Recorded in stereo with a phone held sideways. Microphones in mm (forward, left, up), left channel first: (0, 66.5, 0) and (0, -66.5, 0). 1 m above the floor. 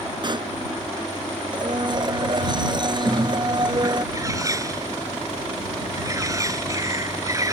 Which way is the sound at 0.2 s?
40° right (ahead or behind).